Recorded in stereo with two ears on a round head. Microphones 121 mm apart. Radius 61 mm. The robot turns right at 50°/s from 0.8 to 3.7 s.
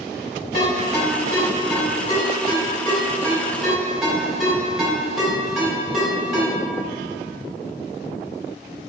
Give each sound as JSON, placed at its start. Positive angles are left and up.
{"t": 0.5, "sound": "a ringtone", "side_deg": 40, "distance_m": 1.5}